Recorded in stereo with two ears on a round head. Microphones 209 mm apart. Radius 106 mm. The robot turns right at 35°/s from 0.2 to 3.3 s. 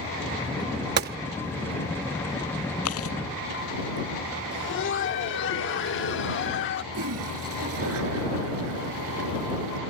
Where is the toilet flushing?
60° right (ahead or behind).